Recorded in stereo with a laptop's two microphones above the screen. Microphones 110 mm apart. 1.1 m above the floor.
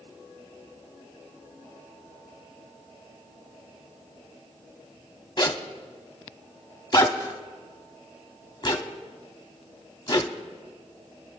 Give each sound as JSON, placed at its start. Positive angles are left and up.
{"t": 5.4, "sound": "a zipper", "side_deg": 40, "distance_m": 0.8}